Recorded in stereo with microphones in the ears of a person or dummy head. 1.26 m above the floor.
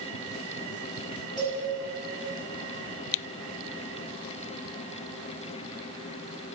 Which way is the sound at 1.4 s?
Centre (ahead or behind).